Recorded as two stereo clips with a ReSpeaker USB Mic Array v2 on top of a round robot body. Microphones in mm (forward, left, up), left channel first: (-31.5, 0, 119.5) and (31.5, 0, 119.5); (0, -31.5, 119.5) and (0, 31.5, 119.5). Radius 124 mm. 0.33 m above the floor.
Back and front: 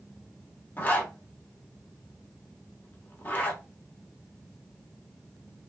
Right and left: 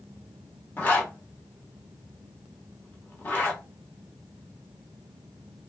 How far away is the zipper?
About 1.3 m.